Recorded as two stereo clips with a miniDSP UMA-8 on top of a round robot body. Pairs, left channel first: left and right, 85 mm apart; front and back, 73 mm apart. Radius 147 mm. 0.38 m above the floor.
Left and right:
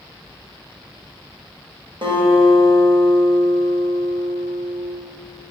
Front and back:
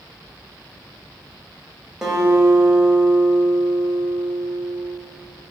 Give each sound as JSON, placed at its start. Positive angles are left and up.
{"t": 2.0, "sound": "a guitar", "azimuth_deg": -95, "distance_m": 2.5}